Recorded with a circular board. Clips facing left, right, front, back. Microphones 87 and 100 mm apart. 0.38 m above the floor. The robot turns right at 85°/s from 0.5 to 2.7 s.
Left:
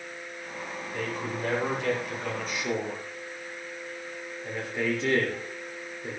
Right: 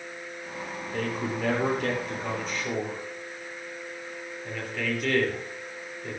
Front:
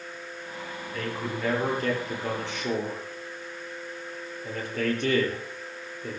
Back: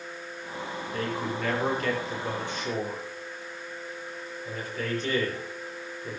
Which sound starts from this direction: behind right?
A man speaking, at 0.9 s.